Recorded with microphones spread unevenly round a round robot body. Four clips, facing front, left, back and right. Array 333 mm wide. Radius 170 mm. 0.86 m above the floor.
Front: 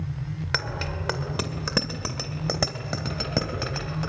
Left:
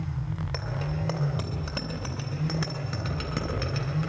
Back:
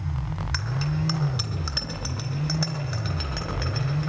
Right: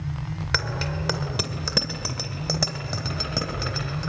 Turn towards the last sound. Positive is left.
turn(degrees=10)